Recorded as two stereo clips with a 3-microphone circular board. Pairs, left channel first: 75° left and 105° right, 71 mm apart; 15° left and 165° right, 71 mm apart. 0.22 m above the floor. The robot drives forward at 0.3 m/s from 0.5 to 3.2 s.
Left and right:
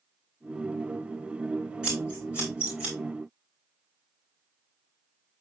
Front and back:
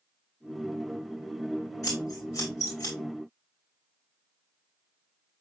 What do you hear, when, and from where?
1.8 s scissors: 30° right, 9 m